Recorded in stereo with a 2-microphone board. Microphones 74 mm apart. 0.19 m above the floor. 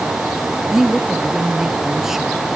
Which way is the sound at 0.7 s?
5° right (ahead or behind).